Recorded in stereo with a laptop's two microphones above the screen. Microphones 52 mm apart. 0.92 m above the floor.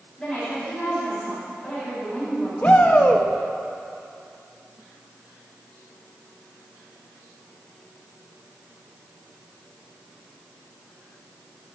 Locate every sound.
0.2 s a woman speaking: 10° left (ahead or behind), 6.5 m
2.6 s a shout: 30° left (ahead or behind), 1.5 m